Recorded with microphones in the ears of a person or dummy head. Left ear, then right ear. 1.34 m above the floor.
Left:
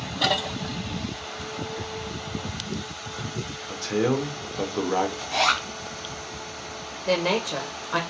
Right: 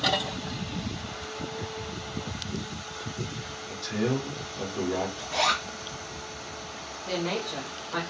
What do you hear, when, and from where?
3.7 s a man speaking: 50° left (ahead or behind), 0.7 m
5.2 s a zipper: 20° left (ahead or behind), 1.2 m
7.1 s a woman speaking: 80° left, 0.6 m